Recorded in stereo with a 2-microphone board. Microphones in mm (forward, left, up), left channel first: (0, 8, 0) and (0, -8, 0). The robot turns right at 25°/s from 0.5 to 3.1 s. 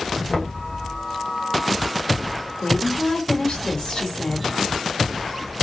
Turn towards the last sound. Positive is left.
turn(degrees=70)  # may be behind; listen again after turning